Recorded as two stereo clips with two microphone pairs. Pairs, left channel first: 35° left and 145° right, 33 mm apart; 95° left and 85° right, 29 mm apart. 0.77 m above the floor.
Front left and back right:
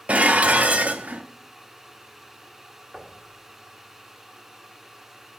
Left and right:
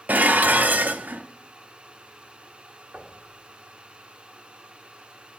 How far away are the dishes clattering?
About 0.5 m.